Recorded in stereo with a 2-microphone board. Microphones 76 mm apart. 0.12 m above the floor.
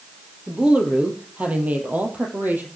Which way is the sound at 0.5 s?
10° right (ahead or behind).